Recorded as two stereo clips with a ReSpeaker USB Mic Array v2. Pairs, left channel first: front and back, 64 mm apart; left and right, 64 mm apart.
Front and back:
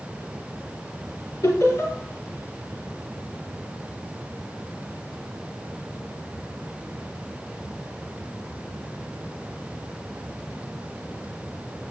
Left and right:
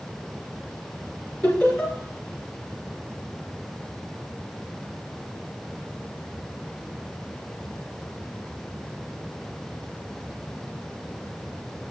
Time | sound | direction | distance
1.4 | laughter | 20° left | 4.5 m